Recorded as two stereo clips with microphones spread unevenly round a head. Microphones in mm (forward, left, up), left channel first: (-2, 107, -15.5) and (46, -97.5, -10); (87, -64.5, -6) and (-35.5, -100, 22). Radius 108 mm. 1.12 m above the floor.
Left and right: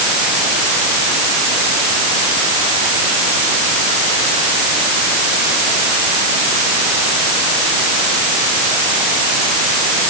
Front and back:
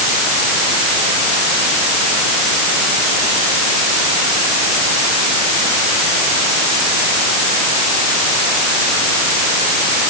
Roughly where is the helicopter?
No helicopter in this recording.